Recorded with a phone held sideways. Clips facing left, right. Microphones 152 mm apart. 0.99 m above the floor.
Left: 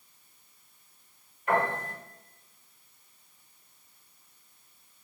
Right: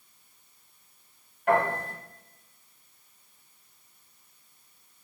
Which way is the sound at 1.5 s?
80° right.